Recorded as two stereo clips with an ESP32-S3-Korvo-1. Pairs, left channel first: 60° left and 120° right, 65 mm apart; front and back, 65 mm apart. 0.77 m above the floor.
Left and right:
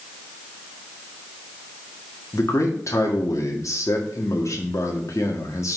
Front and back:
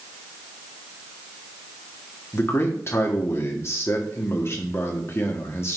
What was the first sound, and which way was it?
A man speaking, 40° left.